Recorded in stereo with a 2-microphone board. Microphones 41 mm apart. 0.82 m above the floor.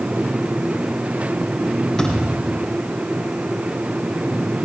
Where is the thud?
15° left (ahead or behind), 7.5 m.